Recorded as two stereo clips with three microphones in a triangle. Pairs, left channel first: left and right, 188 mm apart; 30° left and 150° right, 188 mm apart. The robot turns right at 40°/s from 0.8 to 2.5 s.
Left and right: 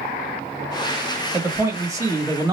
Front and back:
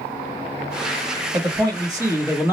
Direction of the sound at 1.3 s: 145° right.